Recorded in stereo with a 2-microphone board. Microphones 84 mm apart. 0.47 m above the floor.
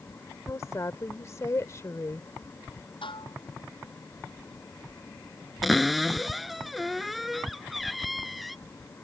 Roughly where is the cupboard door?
Centre.